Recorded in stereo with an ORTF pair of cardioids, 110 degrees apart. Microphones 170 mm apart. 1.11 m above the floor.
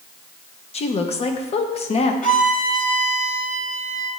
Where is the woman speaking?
40° left, 0.9 m.